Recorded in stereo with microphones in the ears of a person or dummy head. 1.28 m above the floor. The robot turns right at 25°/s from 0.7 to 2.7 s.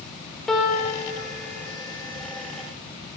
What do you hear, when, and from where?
0.5 s a piano: 5° left (ahead or behind), 1.0 m; by 1.1 s 5° right (ahead or behind), 1.0 m